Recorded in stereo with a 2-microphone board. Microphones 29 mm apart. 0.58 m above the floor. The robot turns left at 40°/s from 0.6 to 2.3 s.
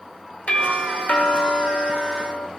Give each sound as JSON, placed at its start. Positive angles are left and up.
{"t": 0.5, "sound": "a doorbell", "azimuth_deg": 125, "distance_m": 2.5}